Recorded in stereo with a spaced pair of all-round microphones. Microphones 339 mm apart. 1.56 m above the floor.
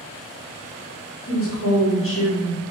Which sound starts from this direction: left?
A woman speaking, at 1.3 s.